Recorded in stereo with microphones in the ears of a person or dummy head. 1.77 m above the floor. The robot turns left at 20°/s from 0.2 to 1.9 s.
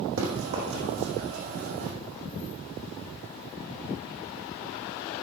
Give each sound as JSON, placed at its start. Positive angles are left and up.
{"t": 0.2, "sound": "running footsteps", "side_deg": -70, "distance_m": 5.0}